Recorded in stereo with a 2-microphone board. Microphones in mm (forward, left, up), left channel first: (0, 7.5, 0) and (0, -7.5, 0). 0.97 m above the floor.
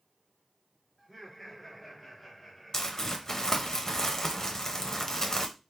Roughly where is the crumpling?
Left.